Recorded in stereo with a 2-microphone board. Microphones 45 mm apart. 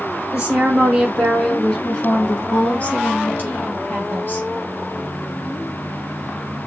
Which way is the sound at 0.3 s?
20° right (ahead or behind).